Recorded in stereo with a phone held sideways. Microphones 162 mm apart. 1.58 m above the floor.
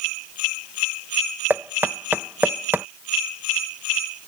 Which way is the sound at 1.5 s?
10° right (ahead or behind).